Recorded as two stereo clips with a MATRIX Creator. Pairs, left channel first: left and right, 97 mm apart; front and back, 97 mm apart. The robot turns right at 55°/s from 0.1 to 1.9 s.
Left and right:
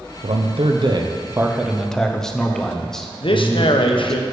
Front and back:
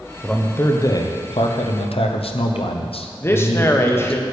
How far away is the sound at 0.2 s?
About 0.8 m.